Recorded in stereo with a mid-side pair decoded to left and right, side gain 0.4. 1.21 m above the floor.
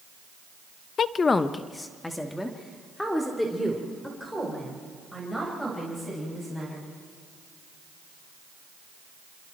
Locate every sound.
1.0 s a woman speaking: 60° left, 0.6 m; by 6.8 s 5° left, 7 m